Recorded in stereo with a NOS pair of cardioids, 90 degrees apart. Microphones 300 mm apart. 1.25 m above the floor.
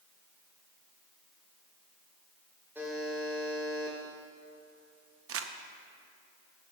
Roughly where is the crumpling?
Ahead right.